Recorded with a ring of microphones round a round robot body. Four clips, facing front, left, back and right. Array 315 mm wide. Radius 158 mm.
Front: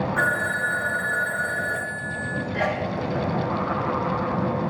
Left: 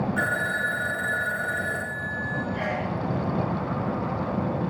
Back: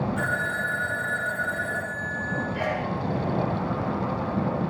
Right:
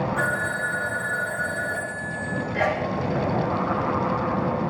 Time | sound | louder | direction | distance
0.2 | a phone ringing | right 1 dB, front 4 dB | 30° left | 5.5 m
2.5 | a sneeze | right 8 dB, front 5 dB | 55° right | 3 m